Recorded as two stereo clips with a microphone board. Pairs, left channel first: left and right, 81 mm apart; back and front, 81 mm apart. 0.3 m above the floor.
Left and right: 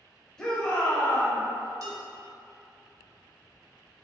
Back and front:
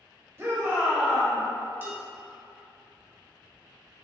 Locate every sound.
0.4 s a shout: 15° left, 1.0 m; by 1.4 s 95° left, 1.0 m
1.8 s dishes clattering: 60° right, 1.1 m